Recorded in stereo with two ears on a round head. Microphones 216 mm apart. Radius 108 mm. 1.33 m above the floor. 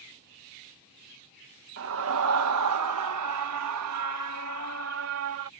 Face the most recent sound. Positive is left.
turn(degrees=-60)  # may be behind; listen again after turning